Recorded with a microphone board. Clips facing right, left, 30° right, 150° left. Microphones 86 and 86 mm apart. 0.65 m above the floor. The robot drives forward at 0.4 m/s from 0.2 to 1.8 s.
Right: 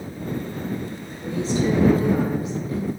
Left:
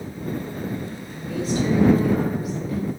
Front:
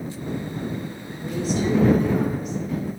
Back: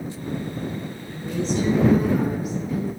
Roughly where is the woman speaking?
Right.